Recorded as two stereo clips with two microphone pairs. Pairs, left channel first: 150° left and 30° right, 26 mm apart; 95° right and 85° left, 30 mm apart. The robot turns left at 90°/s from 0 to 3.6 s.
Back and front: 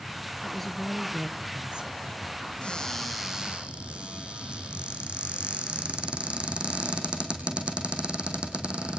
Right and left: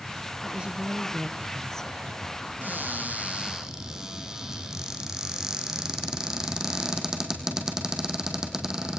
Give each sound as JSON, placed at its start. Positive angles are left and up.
{"t": 0.4, "sound": "a woman speaking", "azimuth_deg": 90, "distance_m": 1.3}
{"t": 2.6, "sound": "a cupboard door", "azimuth_deg": 105, "distance_m": 3.5}